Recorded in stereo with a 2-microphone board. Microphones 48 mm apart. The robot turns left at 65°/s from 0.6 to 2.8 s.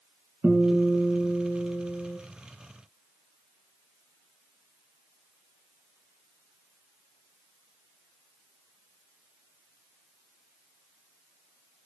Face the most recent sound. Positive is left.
turn(degrees=110)